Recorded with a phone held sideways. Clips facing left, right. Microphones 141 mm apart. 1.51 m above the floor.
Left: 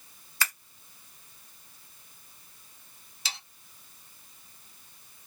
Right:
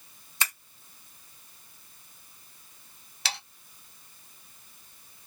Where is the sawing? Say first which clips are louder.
Right 6 dB; 65° right (ahead or behind), 0.8 m.